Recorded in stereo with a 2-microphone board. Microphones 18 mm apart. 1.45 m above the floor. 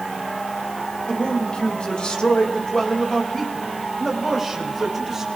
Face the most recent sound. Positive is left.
turn(degrees=-5)  # may be behind; listen again after turning